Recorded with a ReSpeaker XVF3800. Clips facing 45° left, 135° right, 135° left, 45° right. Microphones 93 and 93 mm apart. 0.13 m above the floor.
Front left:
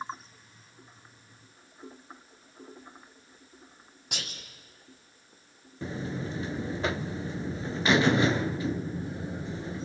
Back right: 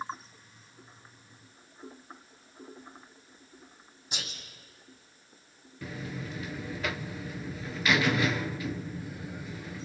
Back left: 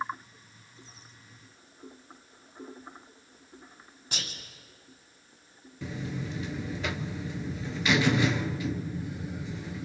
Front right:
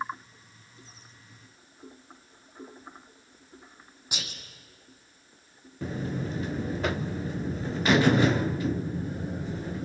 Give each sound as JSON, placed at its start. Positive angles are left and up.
{"t": 4.1, "sound": "whispering", "azimuth_deg": 30, "distance_m": 5.5}
{"t": 5.8, "sound": "a buzzer", "azimuth_deg": -10, "distance_m": 0.6}